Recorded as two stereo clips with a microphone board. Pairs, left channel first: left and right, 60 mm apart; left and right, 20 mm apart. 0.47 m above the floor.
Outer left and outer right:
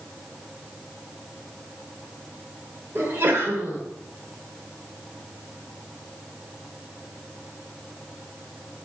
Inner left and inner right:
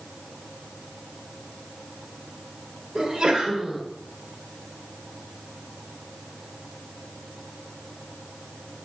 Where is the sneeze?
35° right (ahead or behind), 1.2 m.